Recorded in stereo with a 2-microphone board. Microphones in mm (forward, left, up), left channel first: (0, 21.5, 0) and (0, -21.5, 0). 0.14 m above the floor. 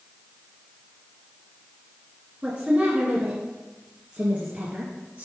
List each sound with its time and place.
2.4 s a woman speaking: 30° right (ahead or behind), 1.7 m; by 5.2 s 35° right (ahead or behind), 2.5 m